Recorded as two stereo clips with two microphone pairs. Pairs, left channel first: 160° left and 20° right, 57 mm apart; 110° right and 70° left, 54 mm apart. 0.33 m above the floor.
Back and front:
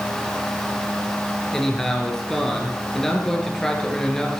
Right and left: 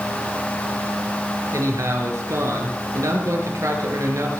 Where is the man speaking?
75° left, 4.5 m.